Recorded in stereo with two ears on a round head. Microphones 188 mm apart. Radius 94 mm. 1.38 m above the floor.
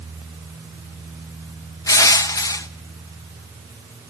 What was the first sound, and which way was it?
Crushing, 15° left (ahead or behind).